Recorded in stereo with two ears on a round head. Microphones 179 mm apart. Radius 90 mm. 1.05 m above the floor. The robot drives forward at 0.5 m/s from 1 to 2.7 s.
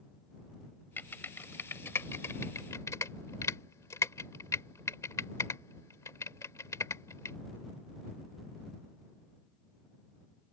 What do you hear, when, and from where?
1.0 s typing on a keyboard: 10° left (ahead or behind); by 7.4 s 15° left (ahead or behind)